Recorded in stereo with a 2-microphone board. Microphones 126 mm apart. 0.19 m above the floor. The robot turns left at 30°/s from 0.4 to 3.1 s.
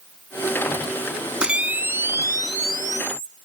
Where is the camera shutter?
10° right, 0.9 m; by 3.3 s 60° right, 0.9 m.